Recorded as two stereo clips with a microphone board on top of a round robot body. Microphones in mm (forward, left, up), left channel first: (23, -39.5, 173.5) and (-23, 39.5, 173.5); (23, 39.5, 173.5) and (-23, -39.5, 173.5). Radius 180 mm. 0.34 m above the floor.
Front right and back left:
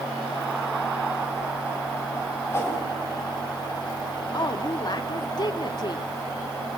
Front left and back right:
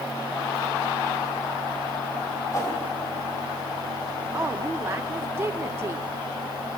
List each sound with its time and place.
2.5 s a whoosh: 5° left, 5 m
4.3 s a woman speaking: 70° right, 1.2 m